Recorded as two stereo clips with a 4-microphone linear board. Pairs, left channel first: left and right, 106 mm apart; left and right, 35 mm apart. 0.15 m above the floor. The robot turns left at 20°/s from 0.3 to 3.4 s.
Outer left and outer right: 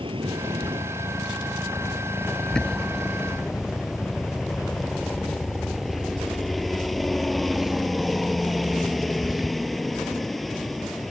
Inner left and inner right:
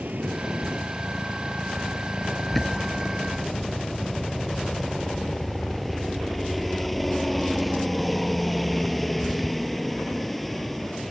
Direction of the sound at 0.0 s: 120° right.